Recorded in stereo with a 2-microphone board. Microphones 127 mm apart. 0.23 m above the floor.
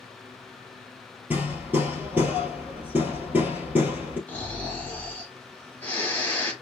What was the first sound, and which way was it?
Hammering, 15° right (ahead or behind).